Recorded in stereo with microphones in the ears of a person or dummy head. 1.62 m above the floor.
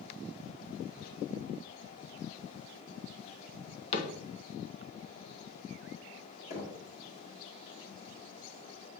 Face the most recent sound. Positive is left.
turn(degrees=35)  # may be behind; listen again after turning